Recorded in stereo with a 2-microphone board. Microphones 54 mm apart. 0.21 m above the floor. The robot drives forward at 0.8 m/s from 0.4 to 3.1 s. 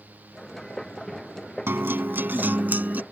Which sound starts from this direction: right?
A guitar, at 1.7 s.